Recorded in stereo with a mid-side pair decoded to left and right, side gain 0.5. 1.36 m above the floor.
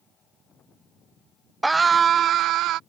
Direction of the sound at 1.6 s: 15° right.